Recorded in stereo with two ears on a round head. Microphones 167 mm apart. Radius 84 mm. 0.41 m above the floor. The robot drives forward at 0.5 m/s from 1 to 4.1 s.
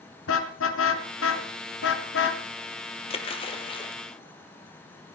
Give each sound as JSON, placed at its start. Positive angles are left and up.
{"t": 0.3, "sound": "a car horn", "side_deg": 85, "distance_m": 2.5}
{"t": 3.1, "sound": "a splash", "side_deg": 35, "distance_m": 2.5}